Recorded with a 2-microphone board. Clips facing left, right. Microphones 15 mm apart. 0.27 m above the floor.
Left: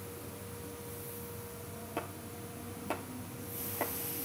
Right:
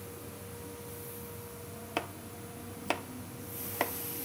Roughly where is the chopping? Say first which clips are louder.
Right 4 dB; right.